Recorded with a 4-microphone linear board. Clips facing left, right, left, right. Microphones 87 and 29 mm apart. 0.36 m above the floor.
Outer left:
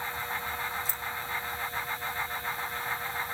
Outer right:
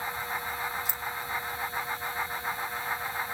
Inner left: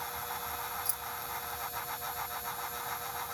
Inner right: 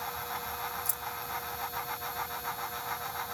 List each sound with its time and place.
0.8 s keys jangling: 35° left (ahead or behind), 1.2 m